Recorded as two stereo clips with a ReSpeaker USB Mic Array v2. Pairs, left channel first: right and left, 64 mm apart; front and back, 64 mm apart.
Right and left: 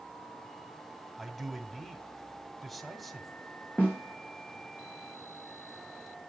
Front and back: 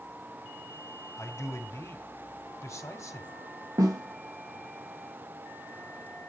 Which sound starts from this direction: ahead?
A man speaking, at 1.2 s.